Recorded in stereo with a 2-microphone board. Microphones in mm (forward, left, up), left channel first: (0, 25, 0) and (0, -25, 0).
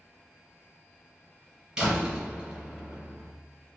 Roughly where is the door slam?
Centre.